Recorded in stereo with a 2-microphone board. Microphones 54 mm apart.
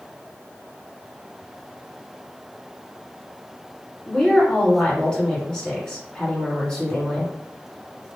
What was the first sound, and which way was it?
A woman speaking, 20° left (ahead or behind).